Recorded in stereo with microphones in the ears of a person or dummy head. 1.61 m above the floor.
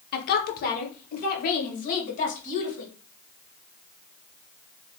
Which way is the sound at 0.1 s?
55° left (ahead or behind).